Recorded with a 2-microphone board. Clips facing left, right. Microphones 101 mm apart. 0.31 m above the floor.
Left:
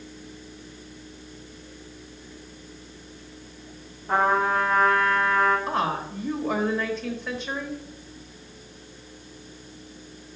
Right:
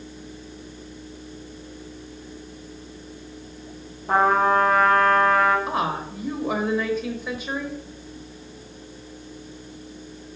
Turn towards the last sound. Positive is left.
turn(degrees=-5)  # may be behind; listen again after turning